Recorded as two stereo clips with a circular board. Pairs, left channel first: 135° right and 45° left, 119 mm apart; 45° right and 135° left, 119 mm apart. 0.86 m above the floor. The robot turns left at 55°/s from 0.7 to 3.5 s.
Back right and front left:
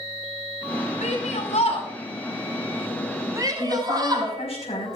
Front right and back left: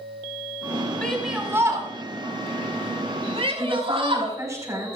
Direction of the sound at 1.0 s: 125° right.